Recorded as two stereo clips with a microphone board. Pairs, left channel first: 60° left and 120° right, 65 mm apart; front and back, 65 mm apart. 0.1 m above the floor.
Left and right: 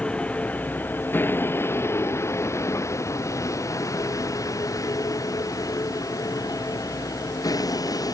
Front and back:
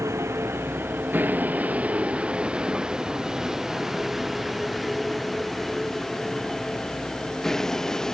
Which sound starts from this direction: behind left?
A vehicle, at 0.0 s.